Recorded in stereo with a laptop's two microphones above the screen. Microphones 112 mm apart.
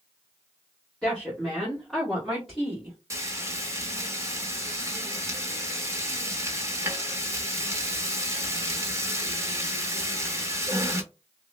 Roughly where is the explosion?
No explosion in this recording.